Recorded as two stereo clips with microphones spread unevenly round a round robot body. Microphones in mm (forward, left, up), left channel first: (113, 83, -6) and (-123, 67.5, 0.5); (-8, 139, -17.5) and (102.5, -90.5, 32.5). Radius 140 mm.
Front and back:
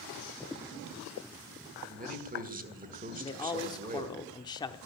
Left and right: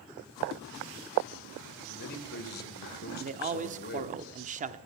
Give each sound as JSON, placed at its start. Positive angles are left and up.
{"t": 1.9, "sound": "a man speaking", "azimuth_deg": 140, "distance_m": 1.9}
{"t": 3.2, "sound": "a man speaking", "azimuth_deg": -25, "distance_m": 0.8}